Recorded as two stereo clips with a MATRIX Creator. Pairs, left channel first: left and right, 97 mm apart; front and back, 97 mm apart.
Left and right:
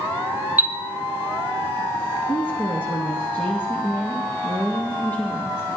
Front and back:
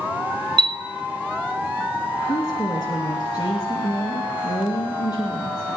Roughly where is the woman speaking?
Ahead left.